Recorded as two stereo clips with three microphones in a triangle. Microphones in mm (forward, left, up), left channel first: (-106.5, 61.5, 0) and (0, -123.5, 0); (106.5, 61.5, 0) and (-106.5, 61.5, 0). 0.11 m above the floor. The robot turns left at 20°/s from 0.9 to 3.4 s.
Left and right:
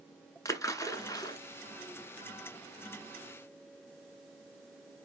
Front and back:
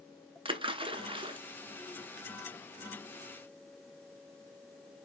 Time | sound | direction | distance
0.5 | a splash | 175° left | 0.5 m